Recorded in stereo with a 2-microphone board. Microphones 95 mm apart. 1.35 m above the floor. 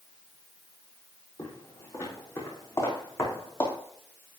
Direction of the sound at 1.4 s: 30° left (ahead or behind).